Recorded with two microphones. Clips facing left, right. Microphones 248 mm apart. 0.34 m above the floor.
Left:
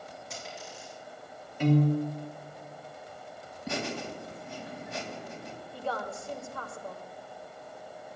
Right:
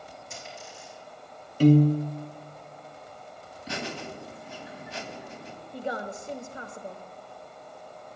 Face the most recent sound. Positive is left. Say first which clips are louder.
# right 3 dB
turn(degrees=-20)  # may be behind; listen again after turning